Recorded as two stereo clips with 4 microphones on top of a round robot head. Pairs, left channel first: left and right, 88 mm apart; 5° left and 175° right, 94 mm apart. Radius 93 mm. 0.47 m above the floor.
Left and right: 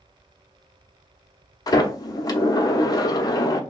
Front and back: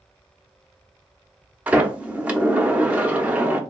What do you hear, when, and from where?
1.7 s a sliding door: 115° left, 0.9 m